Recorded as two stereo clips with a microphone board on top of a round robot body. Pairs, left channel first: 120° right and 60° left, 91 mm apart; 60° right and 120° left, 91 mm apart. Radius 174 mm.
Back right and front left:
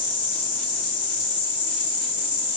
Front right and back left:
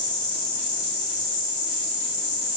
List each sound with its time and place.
0.0 s an insect: 165° left, 1.9 m